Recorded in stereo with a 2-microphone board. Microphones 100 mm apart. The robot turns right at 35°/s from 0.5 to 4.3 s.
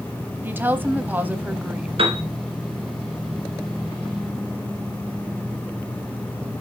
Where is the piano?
65° right (ahead or behind), 1.9 m; by 2.2 s 70° right (ahead or behind), 1.9 m.